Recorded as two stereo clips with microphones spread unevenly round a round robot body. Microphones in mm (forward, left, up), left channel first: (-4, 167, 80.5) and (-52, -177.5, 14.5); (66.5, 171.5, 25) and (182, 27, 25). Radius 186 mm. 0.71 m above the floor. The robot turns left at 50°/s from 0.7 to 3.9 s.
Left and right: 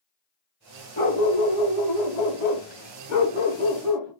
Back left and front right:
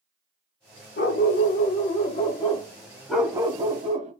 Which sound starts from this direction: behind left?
A dog barking, at 1.0 s.